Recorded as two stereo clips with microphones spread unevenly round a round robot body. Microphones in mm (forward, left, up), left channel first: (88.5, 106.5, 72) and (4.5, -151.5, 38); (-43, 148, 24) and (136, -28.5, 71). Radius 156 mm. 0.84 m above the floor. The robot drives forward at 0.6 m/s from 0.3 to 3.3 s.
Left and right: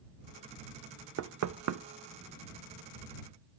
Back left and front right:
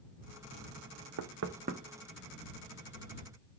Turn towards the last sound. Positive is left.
turn(degrees=-155)